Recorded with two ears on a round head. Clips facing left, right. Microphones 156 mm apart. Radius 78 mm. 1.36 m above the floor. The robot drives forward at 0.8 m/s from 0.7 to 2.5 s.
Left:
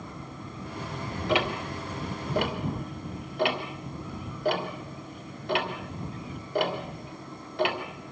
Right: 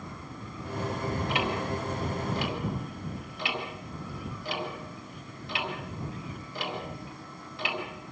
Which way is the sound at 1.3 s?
60° left (ahead or behind).